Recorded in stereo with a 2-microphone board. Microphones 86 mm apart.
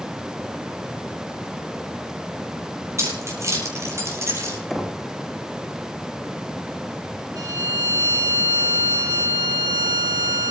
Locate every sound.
3.0 s keys jangling: 35° right (ahead or behind), 7.5 m
4.7 s knocking: centre (ahead or behind), 2.5 m
7.3 s a violin: 45° right (ahead or behind), 8 m